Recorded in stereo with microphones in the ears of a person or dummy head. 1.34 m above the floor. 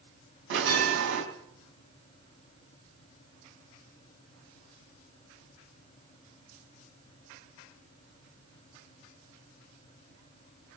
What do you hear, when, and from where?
0.5 s a bell: 80° right, 4 m